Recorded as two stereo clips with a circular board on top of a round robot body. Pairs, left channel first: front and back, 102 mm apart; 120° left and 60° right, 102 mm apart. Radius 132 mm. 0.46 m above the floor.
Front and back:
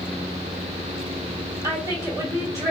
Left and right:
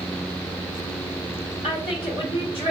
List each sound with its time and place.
1.6 s a woman speaking: 125° left, 1.8 m